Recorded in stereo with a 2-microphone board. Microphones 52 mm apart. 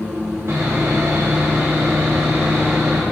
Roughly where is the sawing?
Right.